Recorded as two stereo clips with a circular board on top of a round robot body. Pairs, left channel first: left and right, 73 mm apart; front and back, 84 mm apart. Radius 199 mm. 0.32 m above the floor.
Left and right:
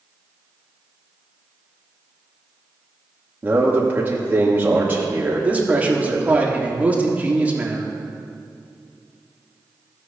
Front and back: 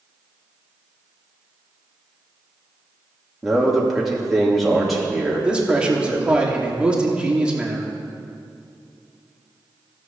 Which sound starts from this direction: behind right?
A man speaking, at 5.4 s.